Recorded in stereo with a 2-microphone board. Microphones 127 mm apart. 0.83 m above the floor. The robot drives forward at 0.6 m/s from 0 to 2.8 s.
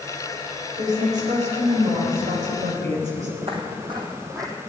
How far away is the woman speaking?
About 4 m.